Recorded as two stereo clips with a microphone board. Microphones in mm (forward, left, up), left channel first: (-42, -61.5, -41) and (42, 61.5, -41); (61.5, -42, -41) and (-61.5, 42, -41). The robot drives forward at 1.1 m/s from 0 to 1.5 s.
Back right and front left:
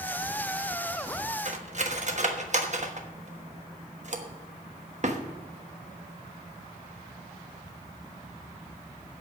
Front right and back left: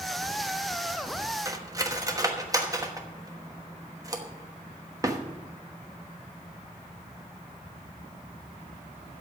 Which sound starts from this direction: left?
Cutlery clinking, at 1.4 s.